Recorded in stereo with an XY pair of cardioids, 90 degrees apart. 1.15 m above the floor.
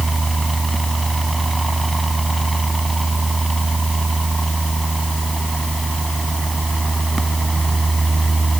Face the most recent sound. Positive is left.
turn(degrees=-20)